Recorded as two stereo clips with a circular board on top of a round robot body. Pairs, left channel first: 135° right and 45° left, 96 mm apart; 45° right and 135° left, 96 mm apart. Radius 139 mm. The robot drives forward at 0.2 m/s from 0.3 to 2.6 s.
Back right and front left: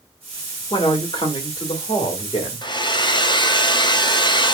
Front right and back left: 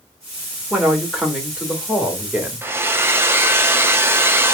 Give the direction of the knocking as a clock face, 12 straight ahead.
No knocking in this recording.